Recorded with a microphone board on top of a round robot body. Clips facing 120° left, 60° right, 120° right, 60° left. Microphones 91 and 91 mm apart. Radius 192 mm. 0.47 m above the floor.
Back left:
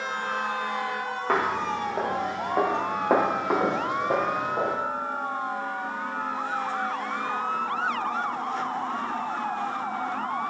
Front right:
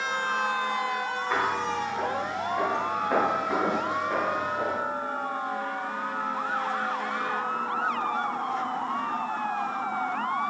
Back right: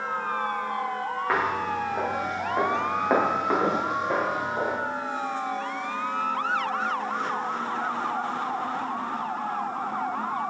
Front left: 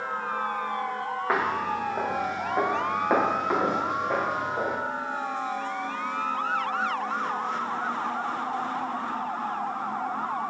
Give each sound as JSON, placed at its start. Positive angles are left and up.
{"t": 1.3, "sound": "footsteps", "azimuth_deg": 140, "distance_m": 3.5}